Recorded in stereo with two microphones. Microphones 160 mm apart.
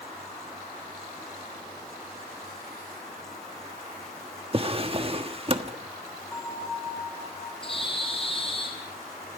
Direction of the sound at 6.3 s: 15° left (ahead or behind).